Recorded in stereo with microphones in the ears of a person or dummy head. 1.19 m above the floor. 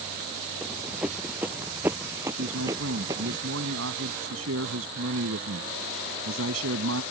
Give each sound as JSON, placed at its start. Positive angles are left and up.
{"t": 0.6, "sound": "running footsteps", "side_deg": 0}
{"t": 2.4, "sound": "a man speaking", "side_deg": -75}